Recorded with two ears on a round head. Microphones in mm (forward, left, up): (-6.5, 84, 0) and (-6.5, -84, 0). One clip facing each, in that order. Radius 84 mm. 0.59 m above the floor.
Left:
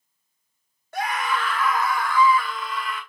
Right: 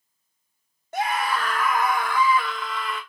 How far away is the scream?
About 0.7 m.